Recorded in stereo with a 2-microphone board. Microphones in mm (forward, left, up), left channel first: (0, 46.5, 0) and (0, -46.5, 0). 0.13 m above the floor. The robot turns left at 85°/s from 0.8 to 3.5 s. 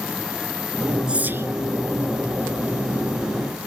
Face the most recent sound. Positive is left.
turn(degrees=140)